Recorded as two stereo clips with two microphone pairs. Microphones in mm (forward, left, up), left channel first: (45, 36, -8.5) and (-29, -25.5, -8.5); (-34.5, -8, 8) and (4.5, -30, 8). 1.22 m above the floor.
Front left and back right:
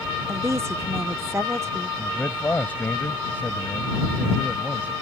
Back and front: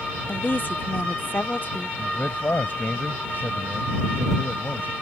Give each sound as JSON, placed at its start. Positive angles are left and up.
{"t": 0.3, "sound": "a woman speaking", "azimuth_deg": 165}
{"t": 2.0, "sound": "a man speaking", "azimuth_deg": 110}